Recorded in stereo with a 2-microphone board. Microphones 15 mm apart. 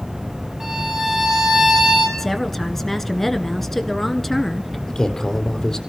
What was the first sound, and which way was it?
A violin, 10° right (ahead or behind).